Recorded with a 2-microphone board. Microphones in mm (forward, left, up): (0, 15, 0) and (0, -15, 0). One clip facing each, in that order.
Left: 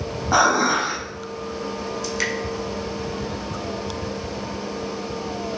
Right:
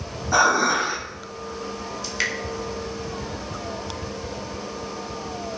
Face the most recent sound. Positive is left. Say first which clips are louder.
# even
turn(degrees=-15)  # may be behind; listen again after turning